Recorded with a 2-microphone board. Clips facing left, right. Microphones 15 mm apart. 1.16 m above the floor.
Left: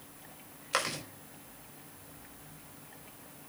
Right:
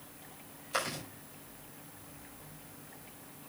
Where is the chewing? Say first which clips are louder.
Left 3 dB; 35° left (ahead or behind), 5 m.